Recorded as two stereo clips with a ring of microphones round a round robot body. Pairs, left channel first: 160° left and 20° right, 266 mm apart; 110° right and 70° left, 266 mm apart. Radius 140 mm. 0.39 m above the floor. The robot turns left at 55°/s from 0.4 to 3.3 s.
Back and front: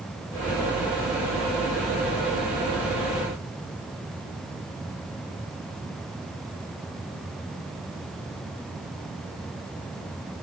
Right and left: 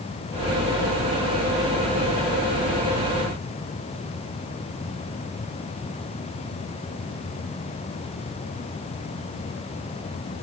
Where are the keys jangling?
No keys jangling in this recording.